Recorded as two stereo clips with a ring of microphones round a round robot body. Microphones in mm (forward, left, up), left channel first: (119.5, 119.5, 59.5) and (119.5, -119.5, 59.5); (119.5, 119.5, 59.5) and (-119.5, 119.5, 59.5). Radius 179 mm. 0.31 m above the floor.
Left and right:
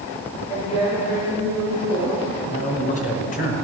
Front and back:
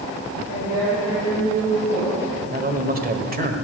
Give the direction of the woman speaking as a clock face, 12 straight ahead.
6 o'clock.